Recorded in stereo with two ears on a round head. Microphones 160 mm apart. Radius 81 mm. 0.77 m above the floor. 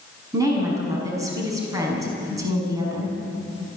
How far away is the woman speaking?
About 6 m.